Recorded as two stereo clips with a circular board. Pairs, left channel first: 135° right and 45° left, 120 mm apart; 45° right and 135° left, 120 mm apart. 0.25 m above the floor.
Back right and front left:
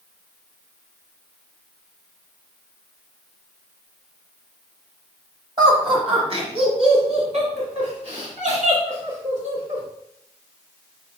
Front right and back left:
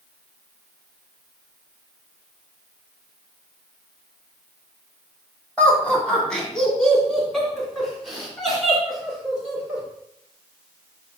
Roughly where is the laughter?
Ahead left.